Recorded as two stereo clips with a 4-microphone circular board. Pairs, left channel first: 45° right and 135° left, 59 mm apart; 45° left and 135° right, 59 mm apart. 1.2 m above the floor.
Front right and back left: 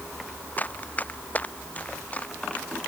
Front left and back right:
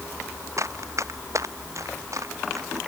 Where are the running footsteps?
105° right; by 2.8 s 110° right.